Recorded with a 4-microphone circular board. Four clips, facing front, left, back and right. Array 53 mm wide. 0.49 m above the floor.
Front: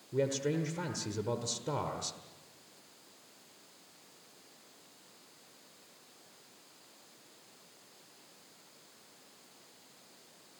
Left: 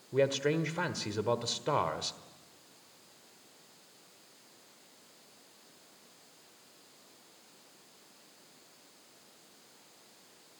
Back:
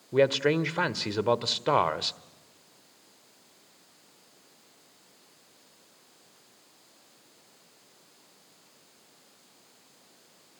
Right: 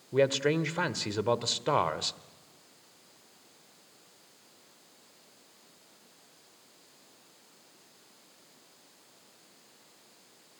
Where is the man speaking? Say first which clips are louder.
Right 3 dB, back 9 dB; 165° right, 1.2 m.